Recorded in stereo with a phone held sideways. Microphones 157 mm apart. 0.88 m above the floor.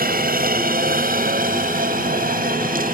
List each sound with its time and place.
0.0 s a helicopter: 75° right (ahead or behind); by 3.0 s 65° right (ahead or behind)